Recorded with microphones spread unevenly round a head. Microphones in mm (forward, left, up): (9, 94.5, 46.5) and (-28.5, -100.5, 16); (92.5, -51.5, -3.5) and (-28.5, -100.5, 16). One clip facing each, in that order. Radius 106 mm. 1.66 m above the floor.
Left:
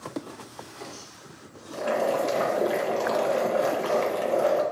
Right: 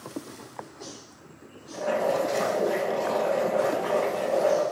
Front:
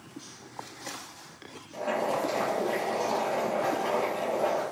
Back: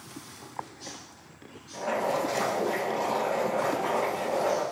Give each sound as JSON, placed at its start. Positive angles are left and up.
{"t": 1.7, "sound": "boiling", "azimuth_deg": 95, "distance_m": 0.6}